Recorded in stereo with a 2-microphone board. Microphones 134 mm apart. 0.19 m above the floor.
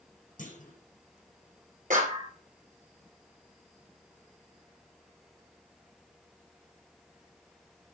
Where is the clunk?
70° left (ahead or behind), 5.5 m.